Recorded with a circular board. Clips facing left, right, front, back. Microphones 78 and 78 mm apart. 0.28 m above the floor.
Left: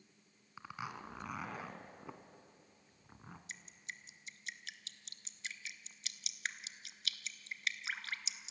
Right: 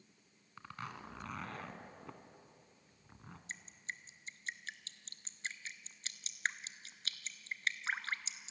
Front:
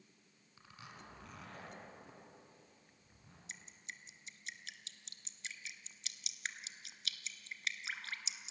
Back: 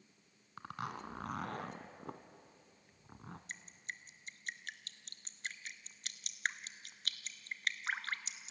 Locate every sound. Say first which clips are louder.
0.6 s a zipper: left 2 dB, back 12 dB; 170° left, 1.5 m
3.5 s dripping: right 6 dB, back 1 dB; 140° right, 1.0 m